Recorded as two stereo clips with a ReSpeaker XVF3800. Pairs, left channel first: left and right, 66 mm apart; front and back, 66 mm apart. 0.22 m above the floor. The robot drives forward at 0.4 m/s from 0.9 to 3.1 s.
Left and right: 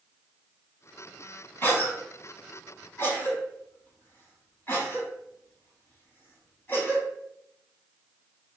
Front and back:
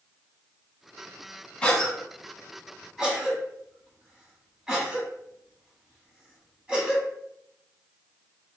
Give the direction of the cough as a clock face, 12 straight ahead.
10 o'clock.